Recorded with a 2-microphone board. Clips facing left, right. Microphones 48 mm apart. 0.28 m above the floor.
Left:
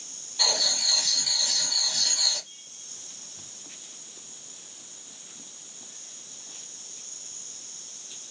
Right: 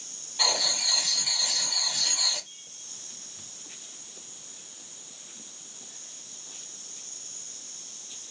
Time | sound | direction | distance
0.4 | writing | 20° right (ahead or behind) | 1.1 m